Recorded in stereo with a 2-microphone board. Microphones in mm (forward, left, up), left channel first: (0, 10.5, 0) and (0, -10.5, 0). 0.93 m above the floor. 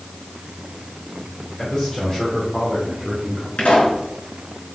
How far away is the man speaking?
About 3.5 m.